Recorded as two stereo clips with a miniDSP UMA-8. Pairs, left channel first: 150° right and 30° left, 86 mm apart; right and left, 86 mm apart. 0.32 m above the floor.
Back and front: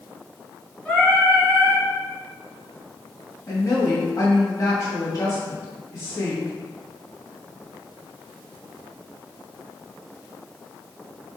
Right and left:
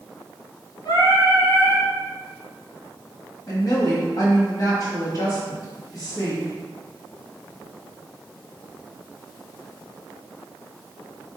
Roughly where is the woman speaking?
Behind right.